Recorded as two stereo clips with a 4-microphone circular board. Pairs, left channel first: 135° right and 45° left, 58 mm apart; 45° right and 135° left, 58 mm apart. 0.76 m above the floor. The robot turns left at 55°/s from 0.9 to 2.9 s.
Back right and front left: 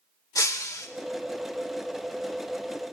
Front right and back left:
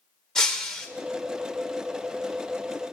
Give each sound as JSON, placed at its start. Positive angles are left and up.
{"t": 0.3, "sound": "breaking glass", "azimuth_deg": -125, "distance_m": 1.2}